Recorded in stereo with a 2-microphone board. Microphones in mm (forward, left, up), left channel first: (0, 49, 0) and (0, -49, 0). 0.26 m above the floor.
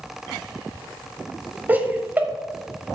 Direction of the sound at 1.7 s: 20° right (ahead or behind).